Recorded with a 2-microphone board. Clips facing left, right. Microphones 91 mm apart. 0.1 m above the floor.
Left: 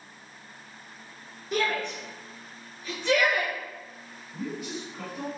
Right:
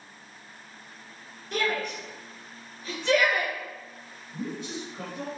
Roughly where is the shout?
Centre.